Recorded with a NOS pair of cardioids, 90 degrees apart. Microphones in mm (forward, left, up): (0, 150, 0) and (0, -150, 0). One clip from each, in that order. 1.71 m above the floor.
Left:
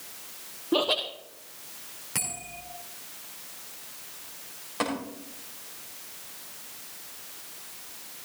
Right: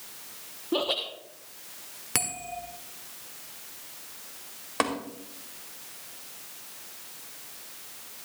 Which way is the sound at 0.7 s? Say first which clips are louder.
Left 3 dB; 10° left.